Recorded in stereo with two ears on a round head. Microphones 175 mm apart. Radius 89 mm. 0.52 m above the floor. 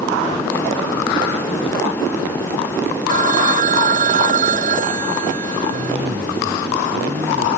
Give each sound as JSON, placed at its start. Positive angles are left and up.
{"t": 3.1, "sound": "a phone ringing", "side_deg": -45}
{"t": 5.7, "sound": "a cough", "side_deg": -30}